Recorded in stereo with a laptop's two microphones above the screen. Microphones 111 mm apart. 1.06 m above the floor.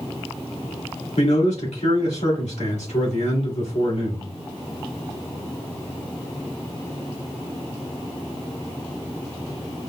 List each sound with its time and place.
1.2 s a man speaking: 90° left, 1.9 m